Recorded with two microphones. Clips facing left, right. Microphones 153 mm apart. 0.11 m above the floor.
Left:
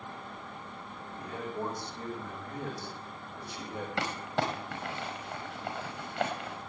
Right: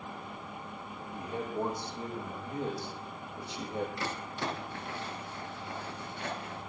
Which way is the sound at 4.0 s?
80° left.